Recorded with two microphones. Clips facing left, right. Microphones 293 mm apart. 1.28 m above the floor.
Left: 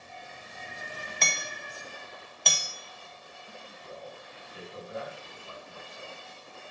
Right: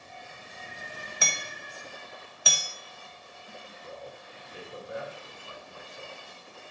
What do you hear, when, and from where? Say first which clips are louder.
1.2 s hammering: even; 10° right (ahead or behind), 1.0 m
3.8 s a man speaking: even; 80° right, 2.5 m